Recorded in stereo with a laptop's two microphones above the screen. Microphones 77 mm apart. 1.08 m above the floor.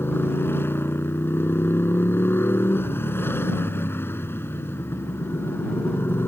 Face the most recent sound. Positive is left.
turn(degrees=30)  # may be behind; listen again after turning